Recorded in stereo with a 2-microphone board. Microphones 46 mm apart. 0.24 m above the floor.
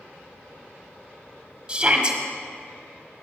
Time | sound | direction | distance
1.7 | a shout | 20° right (ahead or behind) | 1.2 m